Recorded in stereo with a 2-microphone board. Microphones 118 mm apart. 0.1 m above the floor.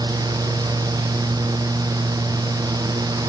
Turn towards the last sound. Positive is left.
No sound to turn to.